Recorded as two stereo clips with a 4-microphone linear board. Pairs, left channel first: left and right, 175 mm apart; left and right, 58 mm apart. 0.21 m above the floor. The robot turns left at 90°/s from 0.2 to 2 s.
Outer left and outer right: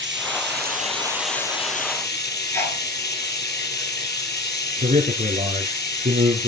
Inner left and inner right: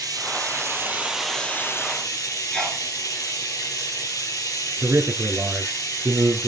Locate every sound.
0.0 s running water: 85° right, 3.5 m; by 6.5 s 115° left, 3.5 m
2.5 s a sneeze: 15° left (ahead or behind), 3.5 m
4.8 s a man speaking: 45° right (ahead or behind), 3 m